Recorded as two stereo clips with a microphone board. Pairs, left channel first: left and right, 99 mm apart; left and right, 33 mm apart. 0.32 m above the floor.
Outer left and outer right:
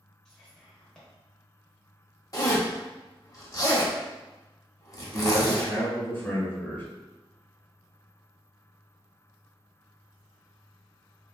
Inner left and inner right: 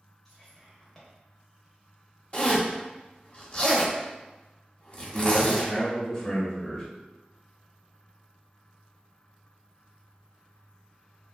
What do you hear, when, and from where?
0.2 s whispering: 5° left (ahead or behind), 0.9 m
2.3 s a zipper: 40° left (ahead or behind), 0.7 m
5.1 s a man speaking: 20° left (ahead or behind), 1.0 m